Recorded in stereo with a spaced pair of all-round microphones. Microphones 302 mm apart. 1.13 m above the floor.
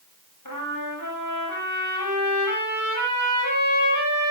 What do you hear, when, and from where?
0.5 s a trumpet: 85° left, 7 m